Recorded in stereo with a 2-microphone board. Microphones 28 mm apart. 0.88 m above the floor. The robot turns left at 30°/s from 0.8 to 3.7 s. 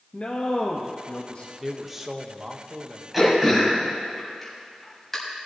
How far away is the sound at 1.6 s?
About 0.8 m.